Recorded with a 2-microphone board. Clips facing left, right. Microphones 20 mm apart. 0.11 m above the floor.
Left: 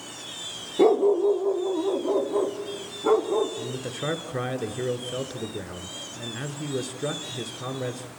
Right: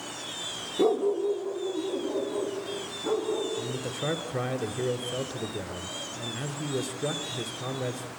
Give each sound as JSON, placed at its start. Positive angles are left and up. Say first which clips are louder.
{"t": 0.8, "sound": "a dog barking", "louder": "left 6 dB", "side_deg": 40, "distance_m": 0.8}
{"t": 3.6, "sound": "a man speaking", "louder": "even", "side_deg": 15, "distance_m": 1.2}